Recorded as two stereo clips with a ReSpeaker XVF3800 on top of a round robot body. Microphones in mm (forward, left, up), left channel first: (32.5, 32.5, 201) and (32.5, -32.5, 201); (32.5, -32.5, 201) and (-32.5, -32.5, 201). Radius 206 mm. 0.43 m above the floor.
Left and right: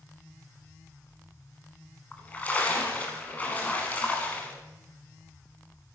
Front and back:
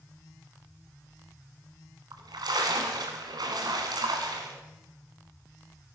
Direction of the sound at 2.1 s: 160° left.